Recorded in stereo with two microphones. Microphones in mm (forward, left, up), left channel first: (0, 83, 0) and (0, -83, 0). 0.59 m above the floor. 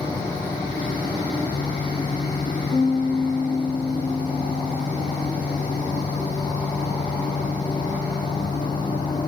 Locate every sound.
2.7 s a piano: 20° left (ahead or behind), 1.4 m